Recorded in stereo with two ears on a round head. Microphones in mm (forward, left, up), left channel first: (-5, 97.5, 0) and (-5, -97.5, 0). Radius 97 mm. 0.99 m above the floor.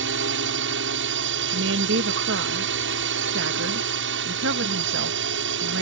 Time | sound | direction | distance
0.0 | a drone | 60° right (ahead or behind) | ?
1.5 | a woman speaking | 60° right (ahead or behind) | ?